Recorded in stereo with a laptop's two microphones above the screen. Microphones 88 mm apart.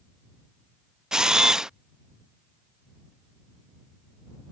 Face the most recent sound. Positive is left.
turn(degrees=-10)  # may be behind; listen again after turning